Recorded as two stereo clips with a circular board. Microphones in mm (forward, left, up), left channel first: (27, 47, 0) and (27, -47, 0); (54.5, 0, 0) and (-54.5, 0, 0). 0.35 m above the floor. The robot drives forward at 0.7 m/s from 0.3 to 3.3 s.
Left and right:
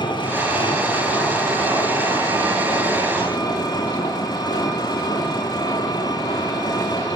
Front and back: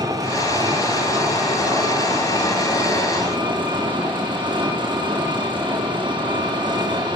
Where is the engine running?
120° left, 9.5 m; by 7.2 s 130° left, 11 m.